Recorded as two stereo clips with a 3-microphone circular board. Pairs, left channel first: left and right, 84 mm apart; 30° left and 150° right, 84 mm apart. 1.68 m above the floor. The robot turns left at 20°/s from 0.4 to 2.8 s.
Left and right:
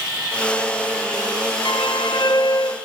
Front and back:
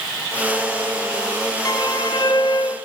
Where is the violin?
75° left, 1.5 m; by 2.8 s 50° left, 1.5 m.